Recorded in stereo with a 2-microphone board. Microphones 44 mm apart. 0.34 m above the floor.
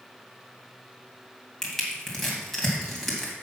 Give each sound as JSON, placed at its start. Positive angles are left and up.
{"t": 1.6, "sound": "crushing", "side_deg": 10, "distance_m": 2.5}